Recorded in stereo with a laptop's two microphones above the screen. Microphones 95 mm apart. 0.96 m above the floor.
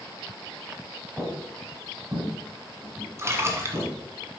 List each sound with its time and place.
1.2 s footsteps: 25° right (ahead or behind), 1.7 m; by 3.9 s 50° right (ahead or behind), 3.5 m
3.2 s a splash: 30° right (ahead or behind), 1.4 m